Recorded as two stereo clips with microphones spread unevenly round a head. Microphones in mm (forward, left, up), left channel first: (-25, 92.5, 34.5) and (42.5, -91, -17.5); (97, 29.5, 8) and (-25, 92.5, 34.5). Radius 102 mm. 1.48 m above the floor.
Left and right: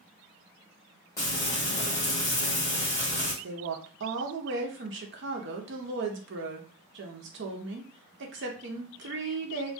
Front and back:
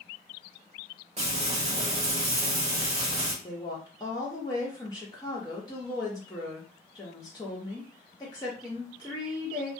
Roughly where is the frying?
Behind.